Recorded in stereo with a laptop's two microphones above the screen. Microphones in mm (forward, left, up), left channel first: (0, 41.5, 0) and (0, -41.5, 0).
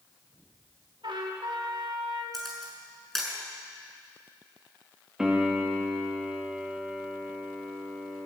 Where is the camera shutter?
Centre (ahead or behind), 6.5 m.